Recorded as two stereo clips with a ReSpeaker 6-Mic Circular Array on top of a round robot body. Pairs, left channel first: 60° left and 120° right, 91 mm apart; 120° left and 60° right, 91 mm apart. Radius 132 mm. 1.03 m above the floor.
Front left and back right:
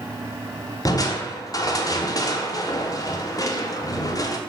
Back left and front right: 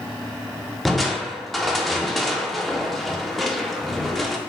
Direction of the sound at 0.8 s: 30° left.